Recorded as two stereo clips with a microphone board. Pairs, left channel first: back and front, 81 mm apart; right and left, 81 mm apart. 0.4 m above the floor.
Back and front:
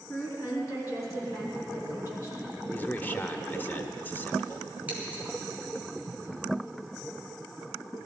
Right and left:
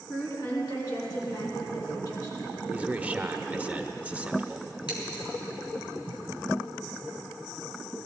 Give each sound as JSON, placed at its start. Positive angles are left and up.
{"t": 0.1, "sound": "a woman speaking", "azimuth_deg": -130, "distance_m": 5.0}
{"t": 2.7, "sound": "a man speaking", "azimuth_deg": 145, "distance_m": 0.8}
{"t": 4.9, "sound": "scissors", "azimuth_deg": -70, "distance_m": 4.5}